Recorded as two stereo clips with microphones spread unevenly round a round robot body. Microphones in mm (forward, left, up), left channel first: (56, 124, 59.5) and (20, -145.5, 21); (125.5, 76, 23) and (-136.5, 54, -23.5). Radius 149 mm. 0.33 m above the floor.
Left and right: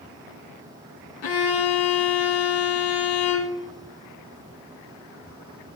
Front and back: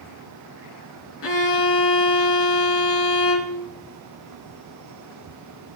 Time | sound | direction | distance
1.2 | a violin | 45° left | 2 m